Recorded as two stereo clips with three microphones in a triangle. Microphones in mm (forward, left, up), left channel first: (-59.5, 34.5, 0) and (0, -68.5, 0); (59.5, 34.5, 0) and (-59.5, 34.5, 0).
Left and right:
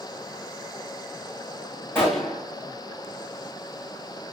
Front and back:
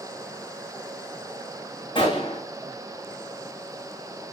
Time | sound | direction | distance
1.9 | a gunshot | 50° left | 4 m